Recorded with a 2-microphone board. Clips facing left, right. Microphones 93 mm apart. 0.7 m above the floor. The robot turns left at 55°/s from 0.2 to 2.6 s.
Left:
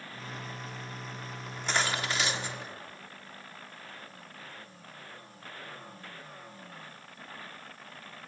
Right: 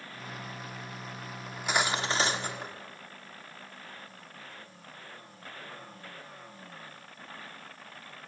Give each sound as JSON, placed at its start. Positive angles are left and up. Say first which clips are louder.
{"t": 1.5, "sound": "cutlery clinking", "louder": "right 2 dB", "azimuth_deg": 0, "distance_m": 0.8}